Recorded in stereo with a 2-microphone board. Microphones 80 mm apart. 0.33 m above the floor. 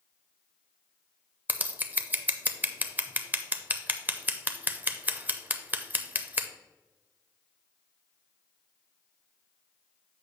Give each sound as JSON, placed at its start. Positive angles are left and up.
{"t": 1.5, "sound": "scissors", "side_deg": -25, "distance_m": 0.5}